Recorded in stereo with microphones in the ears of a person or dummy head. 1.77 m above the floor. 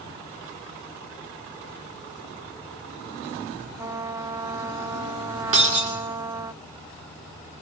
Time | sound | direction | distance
3.8 | a trumpet | 10° right (ahead or behind) | 0.5 m
5.5 | breaking glass | 45° right (ahead or behind) | 2.5 m